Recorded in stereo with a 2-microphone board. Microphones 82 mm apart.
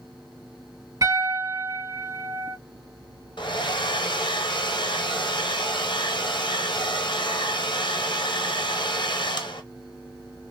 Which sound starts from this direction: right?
A piano, at 1.0 s.